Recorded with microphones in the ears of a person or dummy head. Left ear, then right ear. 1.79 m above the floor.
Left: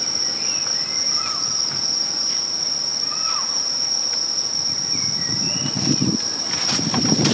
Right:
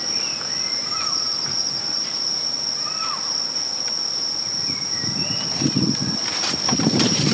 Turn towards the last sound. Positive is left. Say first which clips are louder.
# left 2 dB
turn(degrees=30)  # may be behind; listen again after turning